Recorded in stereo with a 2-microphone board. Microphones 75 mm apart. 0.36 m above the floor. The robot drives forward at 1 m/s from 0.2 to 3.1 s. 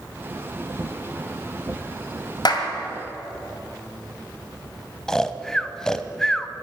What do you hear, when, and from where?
2.5 s a clap: 60° left (ahead or behind), 1.9 m
5.1 s snoring: 10° left (ahead or behind), 0.6 m